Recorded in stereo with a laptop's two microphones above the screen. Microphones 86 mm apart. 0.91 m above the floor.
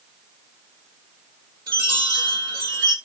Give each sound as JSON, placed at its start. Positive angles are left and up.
{"t": 1.7, "sound": "a chime", "side_deg": -50, "distance_m": 1.4}